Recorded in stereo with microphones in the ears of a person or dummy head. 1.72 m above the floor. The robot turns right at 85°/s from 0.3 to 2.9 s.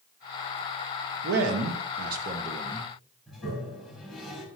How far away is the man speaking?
About 1.5 m.